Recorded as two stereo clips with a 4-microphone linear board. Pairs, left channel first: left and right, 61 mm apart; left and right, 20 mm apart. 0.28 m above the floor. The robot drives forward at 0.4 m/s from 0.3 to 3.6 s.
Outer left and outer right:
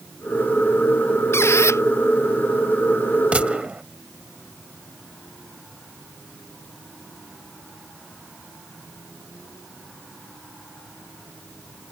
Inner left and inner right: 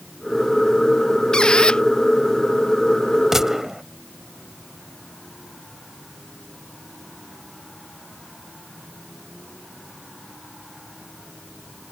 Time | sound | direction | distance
1.3 | a squeak | 45° left (ahead or behind) | ?
3.3 | a gunshot | 20° right (ahead or behind) | ?